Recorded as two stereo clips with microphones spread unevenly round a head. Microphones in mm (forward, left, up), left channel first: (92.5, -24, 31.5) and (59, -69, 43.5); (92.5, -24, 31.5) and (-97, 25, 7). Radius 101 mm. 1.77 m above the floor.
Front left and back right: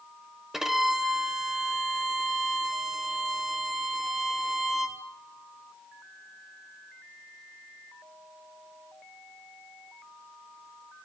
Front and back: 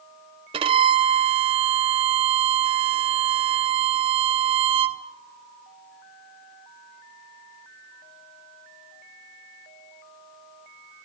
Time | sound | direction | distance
0.5 | a violin | 160° right | 0.8 m